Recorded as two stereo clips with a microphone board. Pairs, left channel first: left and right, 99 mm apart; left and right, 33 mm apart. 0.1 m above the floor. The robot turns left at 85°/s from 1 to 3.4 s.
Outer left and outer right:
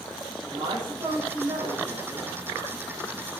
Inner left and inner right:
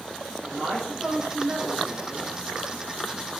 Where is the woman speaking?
55° right, 5.5 m; by 2.3 s 160° right, 5.5 m.